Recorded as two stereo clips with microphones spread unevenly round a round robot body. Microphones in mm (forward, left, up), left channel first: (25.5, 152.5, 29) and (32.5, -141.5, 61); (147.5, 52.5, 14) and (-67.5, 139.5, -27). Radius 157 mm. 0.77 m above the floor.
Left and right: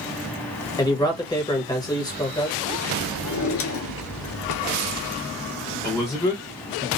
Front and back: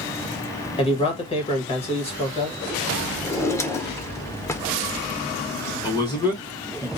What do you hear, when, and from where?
0.8 s a man speaking: 40° left, 1.2 m
3.2 s a drawer: 50° left, 0.6 m
5.8 s a man speaking: 50° left, 0.9 m